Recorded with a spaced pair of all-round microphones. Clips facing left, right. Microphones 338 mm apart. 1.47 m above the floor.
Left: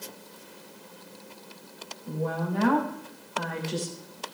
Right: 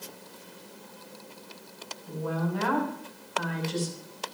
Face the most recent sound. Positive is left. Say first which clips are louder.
# left 1 dB
turn(degrees=80)